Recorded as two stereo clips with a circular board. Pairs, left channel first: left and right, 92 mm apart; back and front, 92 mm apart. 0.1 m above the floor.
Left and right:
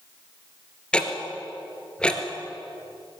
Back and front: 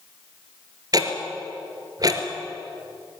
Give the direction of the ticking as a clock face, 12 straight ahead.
12 o'clock.